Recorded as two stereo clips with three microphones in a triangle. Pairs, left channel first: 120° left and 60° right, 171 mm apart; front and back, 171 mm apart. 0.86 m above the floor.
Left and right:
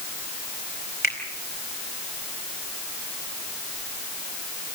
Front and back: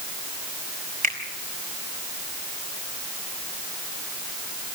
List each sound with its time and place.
1.0 s a finger snap: 140° left, 4.5 m